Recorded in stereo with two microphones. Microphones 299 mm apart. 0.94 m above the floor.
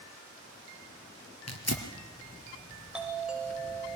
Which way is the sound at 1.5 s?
55° left (ahead or behind).